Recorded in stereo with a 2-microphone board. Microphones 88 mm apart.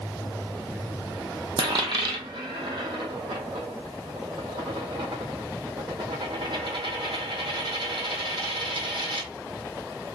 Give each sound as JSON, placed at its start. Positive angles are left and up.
{"t": 1.6, "sound": "a dropped coin", "side_deg": -75, "distance_m": 0.8}